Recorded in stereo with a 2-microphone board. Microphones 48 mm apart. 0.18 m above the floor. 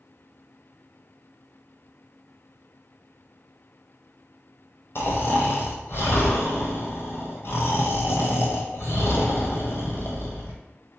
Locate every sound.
5.0 s snoring: 60° left (ahead or behind), 1.0 m